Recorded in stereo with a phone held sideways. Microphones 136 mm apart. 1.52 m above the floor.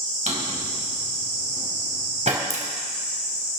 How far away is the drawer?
About 3.5 m.